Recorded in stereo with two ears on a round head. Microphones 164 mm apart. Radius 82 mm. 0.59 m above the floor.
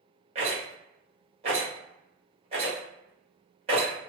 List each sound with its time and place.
0.3 s a rattle: 35° right (ahead or behind), 1.1 m